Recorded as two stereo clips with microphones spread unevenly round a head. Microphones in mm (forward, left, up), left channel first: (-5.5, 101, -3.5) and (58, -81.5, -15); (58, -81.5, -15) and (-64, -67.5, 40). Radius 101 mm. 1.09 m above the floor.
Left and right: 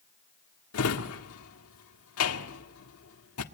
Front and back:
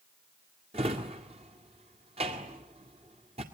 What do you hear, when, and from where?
0.7 s a drawer: 115° left, 1.8 m